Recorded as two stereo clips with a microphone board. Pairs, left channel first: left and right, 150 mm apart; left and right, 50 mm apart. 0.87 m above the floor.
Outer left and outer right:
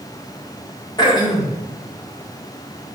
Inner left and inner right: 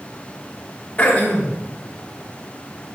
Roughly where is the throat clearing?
Left.